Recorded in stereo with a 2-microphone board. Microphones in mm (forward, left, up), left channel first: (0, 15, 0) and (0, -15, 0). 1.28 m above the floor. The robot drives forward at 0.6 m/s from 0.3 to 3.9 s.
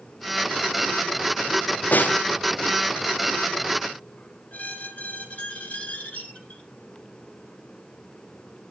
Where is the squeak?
50° left (ahead or behind), 2.5 m.